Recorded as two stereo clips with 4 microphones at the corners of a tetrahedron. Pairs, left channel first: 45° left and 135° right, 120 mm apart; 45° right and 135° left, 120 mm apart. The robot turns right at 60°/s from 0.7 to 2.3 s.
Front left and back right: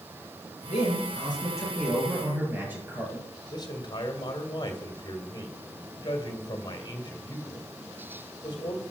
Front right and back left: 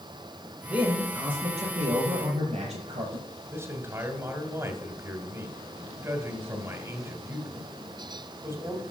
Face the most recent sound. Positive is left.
turn(degrees=80)